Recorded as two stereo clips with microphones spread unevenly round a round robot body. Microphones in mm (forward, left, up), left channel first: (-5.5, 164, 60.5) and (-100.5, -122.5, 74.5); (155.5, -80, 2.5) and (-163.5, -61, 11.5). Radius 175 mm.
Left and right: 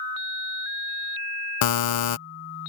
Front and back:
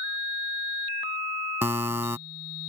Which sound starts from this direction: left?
A buzzer, at 1.6 s.